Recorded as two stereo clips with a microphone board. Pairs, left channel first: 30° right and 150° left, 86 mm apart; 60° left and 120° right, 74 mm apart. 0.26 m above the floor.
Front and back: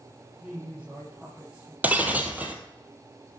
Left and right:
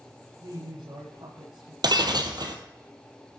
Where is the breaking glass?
140° right, 1.8 m.